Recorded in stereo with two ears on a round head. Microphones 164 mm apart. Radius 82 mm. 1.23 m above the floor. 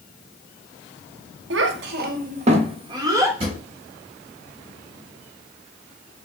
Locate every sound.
1.5 s a child speaking: 70° right (ahead or behind), 0.7 m; by 3.3 s 20° right (ahead or behind), 1.2 m
3.4 s a drawer: 35° right (ahead or behind), 2.0 m